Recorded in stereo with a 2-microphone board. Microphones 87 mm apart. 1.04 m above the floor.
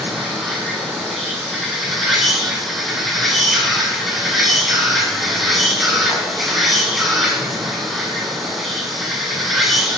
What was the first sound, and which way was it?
An insect, centre (ahead or behind).